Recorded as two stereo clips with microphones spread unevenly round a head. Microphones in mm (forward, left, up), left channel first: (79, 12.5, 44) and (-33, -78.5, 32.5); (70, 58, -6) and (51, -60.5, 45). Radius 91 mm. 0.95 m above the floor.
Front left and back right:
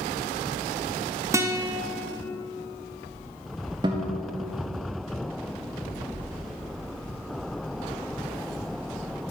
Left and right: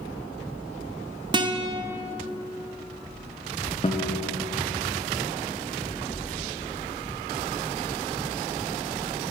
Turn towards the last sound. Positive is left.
turn(degrees=150)